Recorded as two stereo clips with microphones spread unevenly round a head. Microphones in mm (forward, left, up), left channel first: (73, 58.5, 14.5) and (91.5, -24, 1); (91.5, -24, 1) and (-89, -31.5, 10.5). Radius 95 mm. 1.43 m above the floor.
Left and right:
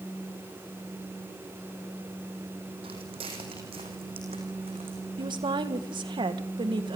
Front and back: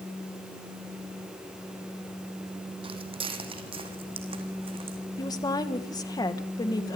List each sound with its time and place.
2.8 s footsteps: 120° right, 4 m
5.2 s a woman speaking: 65° right, 1.7 m